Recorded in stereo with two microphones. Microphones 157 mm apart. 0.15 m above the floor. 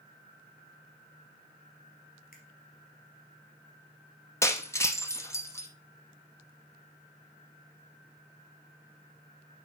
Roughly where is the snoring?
I don't hear snoring.